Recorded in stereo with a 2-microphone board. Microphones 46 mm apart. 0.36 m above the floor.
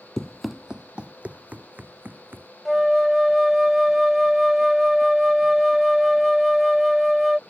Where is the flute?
5° right (ahead or behind).